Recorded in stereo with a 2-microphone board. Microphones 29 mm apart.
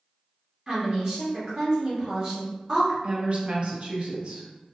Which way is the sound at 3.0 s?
40° right (ahead or behind).